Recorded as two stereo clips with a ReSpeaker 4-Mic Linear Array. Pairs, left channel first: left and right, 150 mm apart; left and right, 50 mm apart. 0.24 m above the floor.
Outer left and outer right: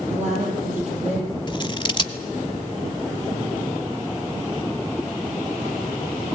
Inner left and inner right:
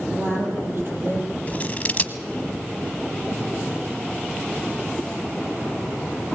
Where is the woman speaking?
50° right (ahead or behind), 8.5 m.